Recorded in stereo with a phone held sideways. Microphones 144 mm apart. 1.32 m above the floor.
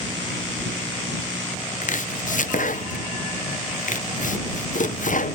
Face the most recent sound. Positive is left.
turn(degrees=70)  # may be behind; listen again after turning